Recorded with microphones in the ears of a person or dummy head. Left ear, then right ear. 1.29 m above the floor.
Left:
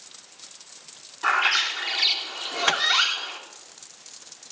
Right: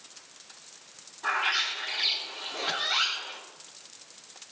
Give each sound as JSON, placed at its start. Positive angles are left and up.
{"t": 1.2, "sound": "a bird", "side_deg": 80, "distance_m": 4.0}
{"t": 2.7, "sound": "a microwave", "side_deg": 50, "distance_m": 0.8}